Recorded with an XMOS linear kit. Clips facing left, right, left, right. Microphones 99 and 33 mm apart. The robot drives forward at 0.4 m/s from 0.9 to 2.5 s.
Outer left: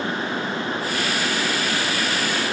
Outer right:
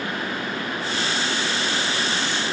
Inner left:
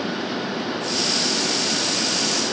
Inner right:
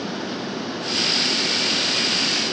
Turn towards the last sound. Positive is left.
No sound to turn to.